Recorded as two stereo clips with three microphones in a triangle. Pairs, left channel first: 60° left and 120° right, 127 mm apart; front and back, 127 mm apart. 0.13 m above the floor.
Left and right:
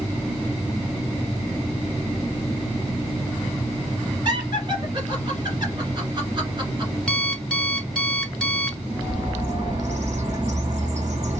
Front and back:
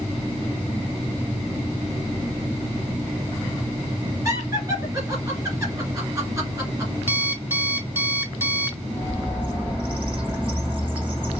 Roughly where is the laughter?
Behind right.